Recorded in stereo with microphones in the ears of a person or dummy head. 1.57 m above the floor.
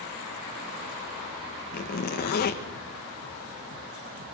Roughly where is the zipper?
Left.